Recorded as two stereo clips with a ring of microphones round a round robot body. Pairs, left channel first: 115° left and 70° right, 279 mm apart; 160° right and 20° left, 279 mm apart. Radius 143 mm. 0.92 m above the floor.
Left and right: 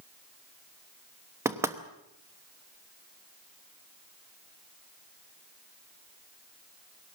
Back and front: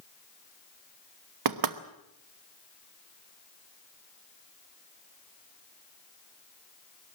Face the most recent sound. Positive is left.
turn(degrees=15)